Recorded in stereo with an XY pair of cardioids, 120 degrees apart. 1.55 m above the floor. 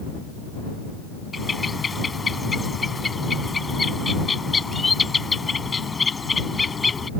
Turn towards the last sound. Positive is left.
turn(degrees=20)